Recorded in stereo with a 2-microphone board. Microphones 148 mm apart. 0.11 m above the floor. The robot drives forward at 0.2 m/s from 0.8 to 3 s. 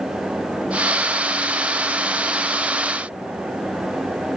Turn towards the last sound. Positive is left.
No sound to turn to.